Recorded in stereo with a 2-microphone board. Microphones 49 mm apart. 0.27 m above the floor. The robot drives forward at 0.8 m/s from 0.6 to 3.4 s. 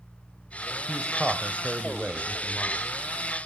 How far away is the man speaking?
About 1.0 m.